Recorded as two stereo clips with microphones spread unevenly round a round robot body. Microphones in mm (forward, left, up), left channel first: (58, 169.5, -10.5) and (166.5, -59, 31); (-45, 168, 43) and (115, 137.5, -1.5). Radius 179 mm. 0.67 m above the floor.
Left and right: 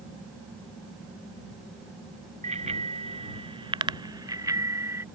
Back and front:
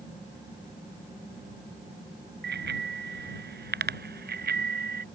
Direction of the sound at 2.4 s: Straight ahead.